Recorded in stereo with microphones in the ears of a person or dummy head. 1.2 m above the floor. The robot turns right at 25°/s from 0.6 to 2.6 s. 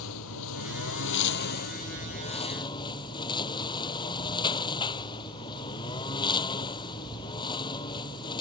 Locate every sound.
0.0 s a lawn mower: 105° left; by 8.4 s 155° left